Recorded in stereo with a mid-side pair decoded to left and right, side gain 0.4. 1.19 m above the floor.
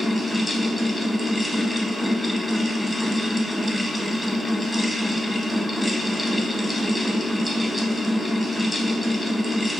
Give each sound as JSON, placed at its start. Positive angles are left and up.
{"t": 0.0, "sound": "a fan", "azimuth_deg": 10, "distance_m": 0.8}